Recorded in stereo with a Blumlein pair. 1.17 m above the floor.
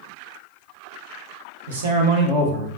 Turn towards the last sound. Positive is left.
turn(degrees=-15)